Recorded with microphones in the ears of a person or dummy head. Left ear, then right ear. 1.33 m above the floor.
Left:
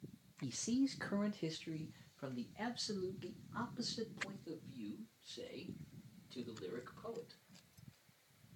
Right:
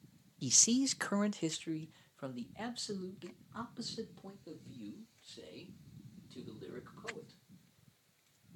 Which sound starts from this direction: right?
A man speaking, at 0.4 s.